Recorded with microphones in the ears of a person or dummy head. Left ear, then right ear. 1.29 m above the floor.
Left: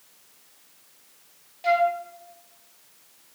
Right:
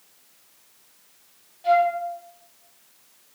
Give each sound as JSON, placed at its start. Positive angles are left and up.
{"t": 1.6, "sound": "a flute", "side_deg": 60, "distance_m": 0.6}